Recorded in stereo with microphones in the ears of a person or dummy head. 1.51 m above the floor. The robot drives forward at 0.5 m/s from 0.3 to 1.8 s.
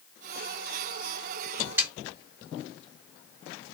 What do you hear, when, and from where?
1.8 s a snare drum: 10° right (ahead or behind), 1.4 m